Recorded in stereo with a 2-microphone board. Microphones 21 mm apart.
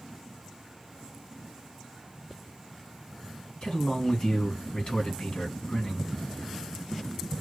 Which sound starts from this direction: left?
A man speaking, at 3.6 s.